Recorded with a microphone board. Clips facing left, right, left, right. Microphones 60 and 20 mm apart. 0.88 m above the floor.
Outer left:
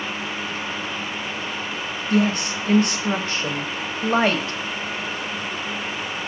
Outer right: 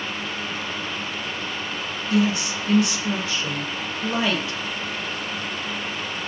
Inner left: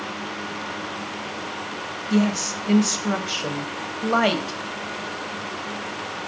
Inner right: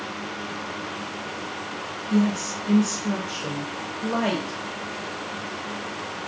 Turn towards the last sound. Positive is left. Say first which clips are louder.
# outer left 1 dB, inner left 1 dB
turn(degrees=50)  # may be behind; listen again after turning